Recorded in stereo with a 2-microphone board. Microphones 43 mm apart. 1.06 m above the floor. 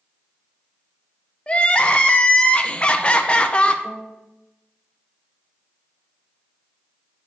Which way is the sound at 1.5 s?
25° left (ahead or behind).